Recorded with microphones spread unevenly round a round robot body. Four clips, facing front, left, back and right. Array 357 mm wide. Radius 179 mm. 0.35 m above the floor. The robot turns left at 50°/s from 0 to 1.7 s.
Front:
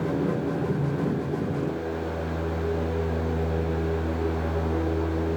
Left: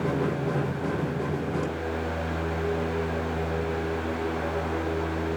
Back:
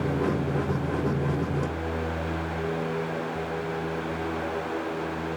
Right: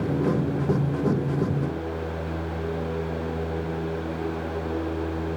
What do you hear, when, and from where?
Only background noise.